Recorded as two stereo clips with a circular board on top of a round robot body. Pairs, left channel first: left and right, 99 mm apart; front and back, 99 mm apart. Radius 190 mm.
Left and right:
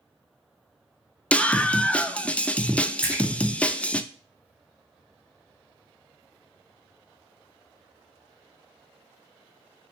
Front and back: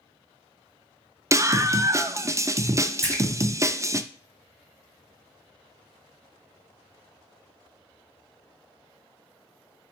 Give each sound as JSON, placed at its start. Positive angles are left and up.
{"t": 1.3, "sound": "a scream", "azimuth_deg": 155, "distance_m": 0.5}
{"t": 3.0, "sound": "a splash", "azimuth_deg": -160, "distance_m": 2.0}